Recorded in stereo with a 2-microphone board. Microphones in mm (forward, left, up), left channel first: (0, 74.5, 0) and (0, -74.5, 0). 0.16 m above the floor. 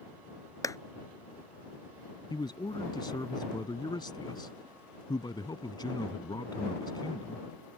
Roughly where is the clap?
Left.